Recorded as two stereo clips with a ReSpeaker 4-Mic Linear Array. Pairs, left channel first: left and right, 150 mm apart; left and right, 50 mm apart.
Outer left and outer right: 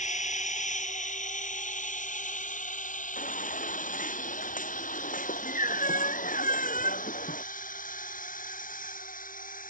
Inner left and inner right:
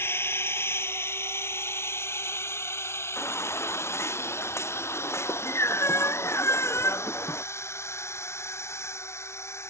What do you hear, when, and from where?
0.0 s a drone: 55° left (ahead or behind); by 9.7 s 65° left (ahead or behind)
3.2 s a baby crying: 65° left (ahead or behind)